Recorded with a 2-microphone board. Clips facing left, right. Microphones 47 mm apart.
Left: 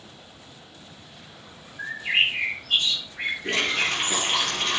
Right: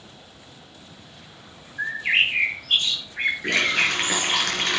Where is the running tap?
70° right (ahead or behind), 4 m.